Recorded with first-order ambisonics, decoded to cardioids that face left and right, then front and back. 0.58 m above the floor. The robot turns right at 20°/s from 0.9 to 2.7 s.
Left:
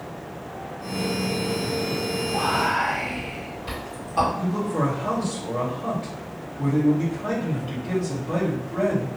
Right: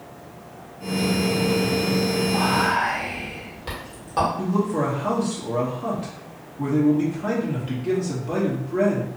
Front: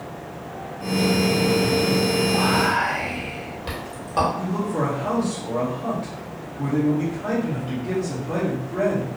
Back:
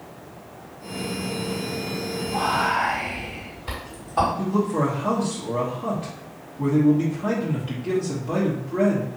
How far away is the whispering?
About 1.8 m.